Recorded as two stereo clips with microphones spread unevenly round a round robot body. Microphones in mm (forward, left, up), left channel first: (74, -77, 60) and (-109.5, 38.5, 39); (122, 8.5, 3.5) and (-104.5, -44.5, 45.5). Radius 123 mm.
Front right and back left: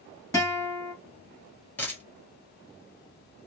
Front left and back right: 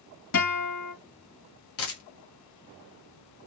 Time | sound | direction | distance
0.3 | a guitar | 45° left | 1.9 m
1.8 | a dropped coin | 45° left | 1.5 m